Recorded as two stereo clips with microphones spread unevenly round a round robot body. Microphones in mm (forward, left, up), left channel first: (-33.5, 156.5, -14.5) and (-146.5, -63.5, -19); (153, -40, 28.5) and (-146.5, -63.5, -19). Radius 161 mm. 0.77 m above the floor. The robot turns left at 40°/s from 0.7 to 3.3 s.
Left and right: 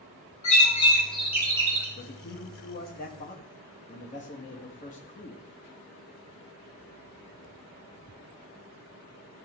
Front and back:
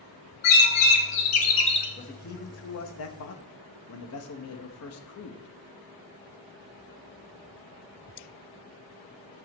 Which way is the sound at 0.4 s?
5° right.